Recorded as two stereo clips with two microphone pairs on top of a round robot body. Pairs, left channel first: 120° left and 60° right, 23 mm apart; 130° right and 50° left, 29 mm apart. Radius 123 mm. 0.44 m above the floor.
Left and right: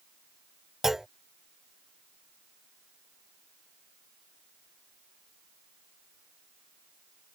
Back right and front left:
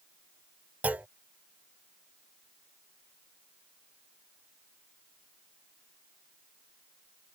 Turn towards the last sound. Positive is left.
turn(degrees=10)